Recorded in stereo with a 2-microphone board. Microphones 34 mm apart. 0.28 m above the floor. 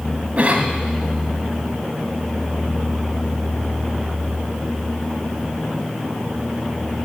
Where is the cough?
40° right (ahead or behind), 1.7 m.